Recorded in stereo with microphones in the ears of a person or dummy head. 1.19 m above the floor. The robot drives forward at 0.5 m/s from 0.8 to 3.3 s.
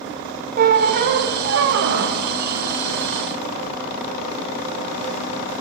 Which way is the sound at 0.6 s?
50° right (ahead or behind).